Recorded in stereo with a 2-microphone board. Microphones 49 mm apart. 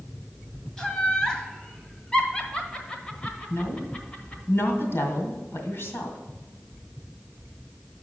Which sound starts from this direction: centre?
Laughter, at 0.8 s.